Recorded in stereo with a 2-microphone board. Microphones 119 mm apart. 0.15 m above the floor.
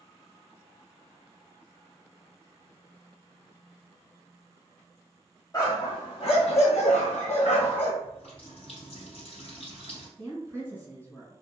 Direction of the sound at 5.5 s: 30° left (ahead or behind).